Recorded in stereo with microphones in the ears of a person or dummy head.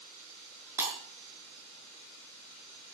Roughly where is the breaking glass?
Centre.